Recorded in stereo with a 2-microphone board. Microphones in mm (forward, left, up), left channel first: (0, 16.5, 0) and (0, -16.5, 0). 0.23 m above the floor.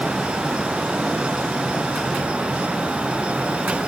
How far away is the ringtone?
No ringtone in this recording.